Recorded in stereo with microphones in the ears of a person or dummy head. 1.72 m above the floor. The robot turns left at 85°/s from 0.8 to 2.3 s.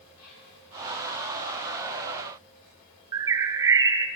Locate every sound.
0.1 s whispering: 10° right (ahead or behind), 5.5 m
3.1 s a bird: 20° right (ahead or behind), 0.8 m